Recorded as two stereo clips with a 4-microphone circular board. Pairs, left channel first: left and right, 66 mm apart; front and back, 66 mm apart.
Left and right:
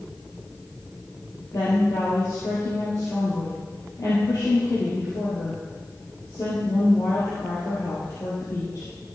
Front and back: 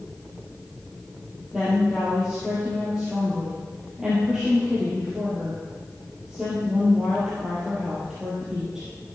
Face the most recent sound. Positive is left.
turn(degrees=100)